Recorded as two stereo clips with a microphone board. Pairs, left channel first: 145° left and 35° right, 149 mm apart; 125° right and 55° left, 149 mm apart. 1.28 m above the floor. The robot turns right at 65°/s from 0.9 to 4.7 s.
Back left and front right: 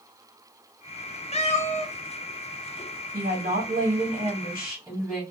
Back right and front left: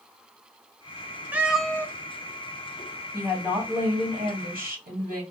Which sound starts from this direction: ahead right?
A woman speaking, at 3.1 s.